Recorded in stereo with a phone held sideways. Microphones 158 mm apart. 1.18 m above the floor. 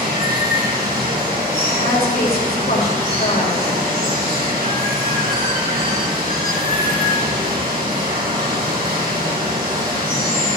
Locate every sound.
0.0 s running water: 75° right (ahead or behind), 4.5 m
1.7 s a woman speaking: 85° left, 3 m